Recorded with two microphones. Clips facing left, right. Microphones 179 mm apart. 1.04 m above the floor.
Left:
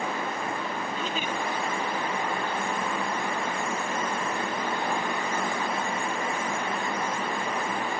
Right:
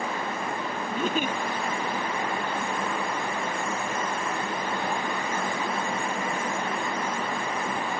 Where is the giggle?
55° right (ahead or behind), 0.6 m.